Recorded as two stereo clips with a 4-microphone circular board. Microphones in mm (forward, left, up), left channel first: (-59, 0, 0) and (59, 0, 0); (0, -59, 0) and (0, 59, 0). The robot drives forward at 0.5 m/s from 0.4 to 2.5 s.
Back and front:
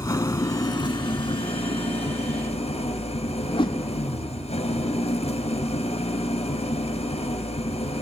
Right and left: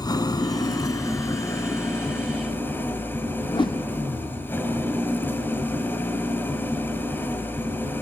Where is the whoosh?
135° right, 1.4 m.